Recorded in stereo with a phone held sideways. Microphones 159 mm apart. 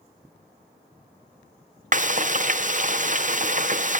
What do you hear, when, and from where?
1.9 s frying: 50° right (ahead or behind), 0.6 m